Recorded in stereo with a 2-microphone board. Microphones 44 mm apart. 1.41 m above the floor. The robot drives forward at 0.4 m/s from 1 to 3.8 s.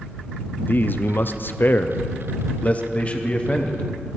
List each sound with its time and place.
0.6 s a man speaking: 45° left (ahead or behind), 0.6 m; by 3.8 s 20° left (ahead or behind), 1.1 m